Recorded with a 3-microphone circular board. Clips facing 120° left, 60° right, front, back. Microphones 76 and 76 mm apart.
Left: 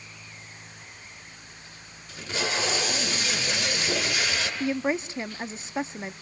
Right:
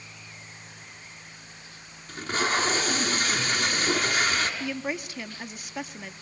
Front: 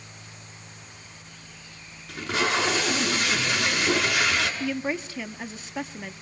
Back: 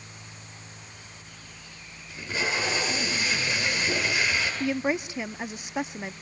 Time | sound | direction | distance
2.1 | tape being pulled | 20° right | 7.5 m
4.6 | a woman speaking | 130° left | 0.9 m